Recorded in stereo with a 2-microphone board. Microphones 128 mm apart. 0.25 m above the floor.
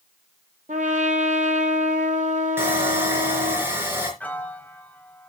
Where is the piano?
10° left (ahead or behind), 1.1 m.